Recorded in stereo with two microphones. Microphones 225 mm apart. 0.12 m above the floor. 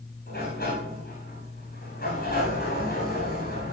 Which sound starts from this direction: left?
A sliding door, at 0.3 s.